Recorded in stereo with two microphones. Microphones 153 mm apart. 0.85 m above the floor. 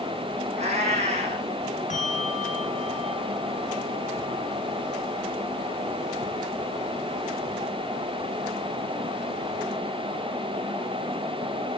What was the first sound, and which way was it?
A cat meowing, 45° right (ahead or behind).